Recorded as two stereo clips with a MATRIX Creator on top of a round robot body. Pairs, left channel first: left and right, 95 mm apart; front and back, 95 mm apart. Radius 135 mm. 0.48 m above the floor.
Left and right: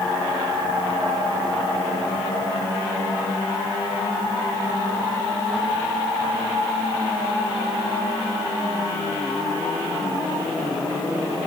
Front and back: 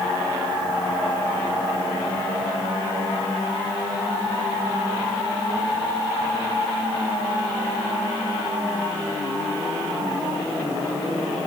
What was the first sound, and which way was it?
Only background noise.